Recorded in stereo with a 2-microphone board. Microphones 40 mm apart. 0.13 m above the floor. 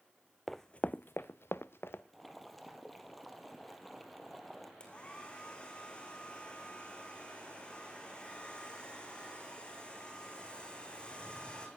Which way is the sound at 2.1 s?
Centre (ahead or behind).